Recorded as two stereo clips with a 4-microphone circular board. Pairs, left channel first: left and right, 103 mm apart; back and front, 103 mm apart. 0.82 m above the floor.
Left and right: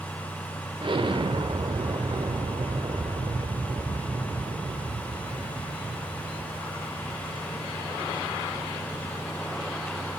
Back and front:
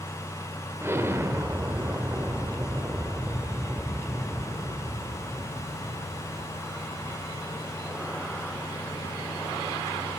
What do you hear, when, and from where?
0.8 s an explosion: 65° right, 0.9 m